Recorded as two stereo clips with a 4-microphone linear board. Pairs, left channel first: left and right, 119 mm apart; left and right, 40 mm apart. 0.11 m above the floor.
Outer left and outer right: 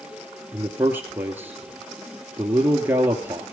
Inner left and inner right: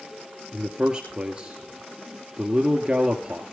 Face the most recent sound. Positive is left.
turn(degrees=-20)  # may be behind; listen again after turning